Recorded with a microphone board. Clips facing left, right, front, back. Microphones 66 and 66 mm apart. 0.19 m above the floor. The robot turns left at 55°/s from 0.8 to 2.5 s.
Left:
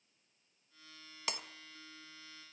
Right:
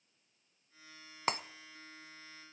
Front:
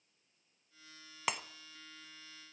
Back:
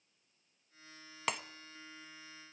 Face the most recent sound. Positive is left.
turn(degrees=-150)